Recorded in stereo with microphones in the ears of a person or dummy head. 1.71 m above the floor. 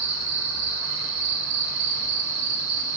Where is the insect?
70° right (ahead or behind), 2 m.